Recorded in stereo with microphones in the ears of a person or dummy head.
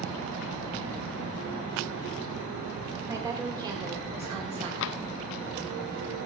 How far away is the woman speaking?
About 3 m.